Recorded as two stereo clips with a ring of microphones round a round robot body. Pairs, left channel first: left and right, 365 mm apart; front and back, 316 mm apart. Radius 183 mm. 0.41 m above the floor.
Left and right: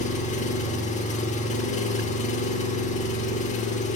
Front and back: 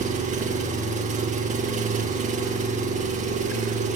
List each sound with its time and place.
0.0 s an engine running: 140° left, 0.9 m